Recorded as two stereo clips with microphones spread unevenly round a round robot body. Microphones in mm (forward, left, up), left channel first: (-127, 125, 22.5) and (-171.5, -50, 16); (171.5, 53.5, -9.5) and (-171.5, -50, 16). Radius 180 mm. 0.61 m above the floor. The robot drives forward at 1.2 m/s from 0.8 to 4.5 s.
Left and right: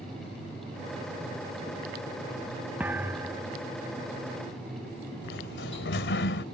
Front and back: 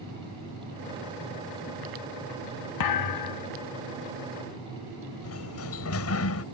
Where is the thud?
20° right.